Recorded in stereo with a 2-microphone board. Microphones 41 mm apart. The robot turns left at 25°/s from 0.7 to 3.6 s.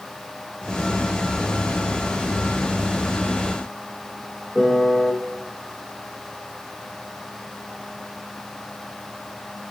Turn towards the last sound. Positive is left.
turn(degrees=15)  # may be behind; listen again after turning